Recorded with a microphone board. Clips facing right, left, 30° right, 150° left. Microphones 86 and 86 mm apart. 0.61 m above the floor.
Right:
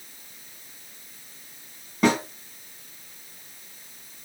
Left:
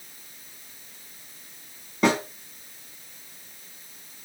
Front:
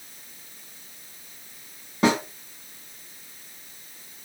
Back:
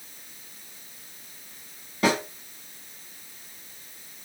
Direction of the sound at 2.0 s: Straight ahead.